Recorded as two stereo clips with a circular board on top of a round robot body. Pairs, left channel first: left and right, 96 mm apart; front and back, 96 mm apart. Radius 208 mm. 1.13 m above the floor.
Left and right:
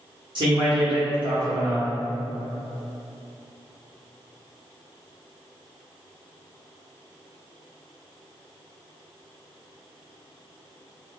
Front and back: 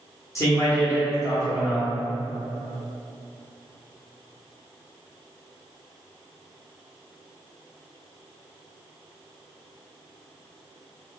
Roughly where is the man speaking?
Ahead right.